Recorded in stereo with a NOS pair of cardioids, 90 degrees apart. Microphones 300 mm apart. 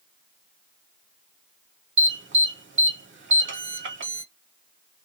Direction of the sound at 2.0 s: 40° right.